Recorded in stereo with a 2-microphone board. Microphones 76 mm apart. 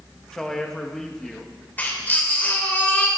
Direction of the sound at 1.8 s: 20° left (ahead or behind).